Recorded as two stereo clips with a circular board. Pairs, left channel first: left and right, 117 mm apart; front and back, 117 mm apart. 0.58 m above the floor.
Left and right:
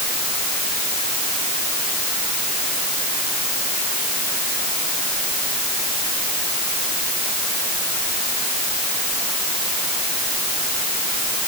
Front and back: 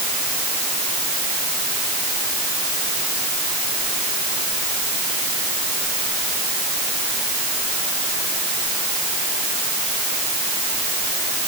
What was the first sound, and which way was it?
Only background noise.